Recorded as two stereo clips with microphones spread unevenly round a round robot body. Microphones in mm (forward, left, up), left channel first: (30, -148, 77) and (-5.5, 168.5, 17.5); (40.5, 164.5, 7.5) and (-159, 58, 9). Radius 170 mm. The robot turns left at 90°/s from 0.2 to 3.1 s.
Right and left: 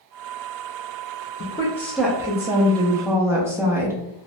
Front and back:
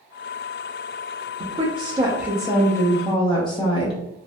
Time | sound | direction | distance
1.4 | a woman speaking | 150° right | 0.5 m